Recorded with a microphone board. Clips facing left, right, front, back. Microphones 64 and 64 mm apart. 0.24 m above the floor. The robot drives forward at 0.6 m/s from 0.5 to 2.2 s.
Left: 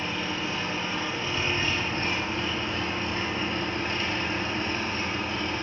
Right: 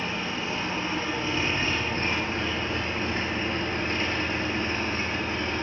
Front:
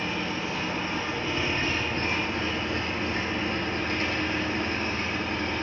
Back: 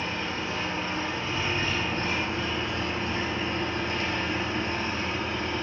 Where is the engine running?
25° right, 3 m; by 5.6 s 35° right, 2.5 m.